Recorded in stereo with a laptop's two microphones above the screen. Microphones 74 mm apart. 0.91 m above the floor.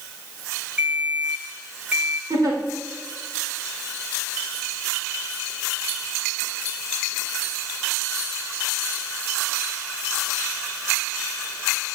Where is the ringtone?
15° right (ahead or behind), 1.6 m.